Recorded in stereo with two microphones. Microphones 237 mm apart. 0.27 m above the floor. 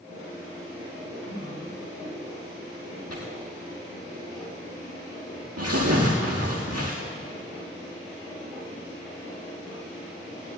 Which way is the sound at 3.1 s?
85° right.